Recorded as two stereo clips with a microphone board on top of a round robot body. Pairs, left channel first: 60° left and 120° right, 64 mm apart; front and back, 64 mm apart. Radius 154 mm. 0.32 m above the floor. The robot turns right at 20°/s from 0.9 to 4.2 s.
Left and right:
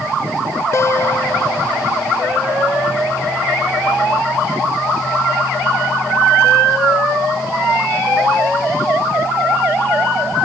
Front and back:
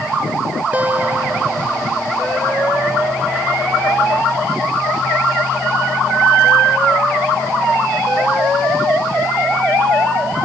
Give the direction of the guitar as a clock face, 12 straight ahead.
8 o'clock.